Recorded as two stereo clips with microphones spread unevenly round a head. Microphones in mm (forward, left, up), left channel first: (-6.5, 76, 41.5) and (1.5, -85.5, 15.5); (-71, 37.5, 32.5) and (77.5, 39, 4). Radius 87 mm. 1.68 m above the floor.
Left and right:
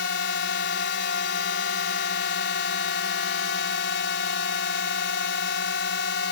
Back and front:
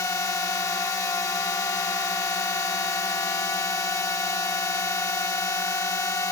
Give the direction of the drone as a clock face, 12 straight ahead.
8 o'clock.